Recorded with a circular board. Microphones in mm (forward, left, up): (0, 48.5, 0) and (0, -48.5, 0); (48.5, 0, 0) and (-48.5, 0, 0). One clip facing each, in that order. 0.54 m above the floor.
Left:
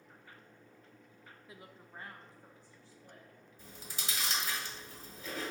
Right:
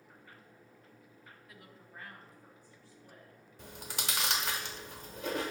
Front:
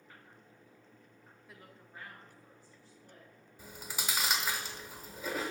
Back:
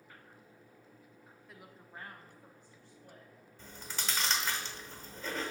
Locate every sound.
1.5 s a woman speaking: 85° left, 0.6 m; by 3.3 s 155° left, 2.5 m
3.6 s chewing: 75° right, 0.9 m